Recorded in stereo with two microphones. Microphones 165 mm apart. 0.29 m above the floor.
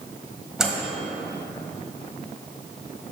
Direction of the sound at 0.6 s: 5° right (ahead or behind).